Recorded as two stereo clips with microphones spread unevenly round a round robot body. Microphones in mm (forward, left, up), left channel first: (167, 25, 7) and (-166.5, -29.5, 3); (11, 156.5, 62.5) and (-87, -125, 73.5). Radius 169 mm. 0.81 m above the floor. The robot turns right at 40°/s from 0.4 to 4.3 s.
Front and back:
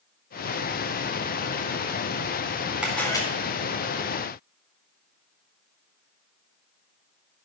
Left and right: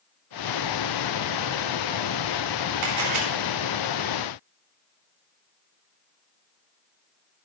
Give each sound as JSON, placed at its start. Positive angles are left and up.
{"t": 2.8, "sound": "a camera shutter", "azimuth_deg": -85, "distance_m": 4.0}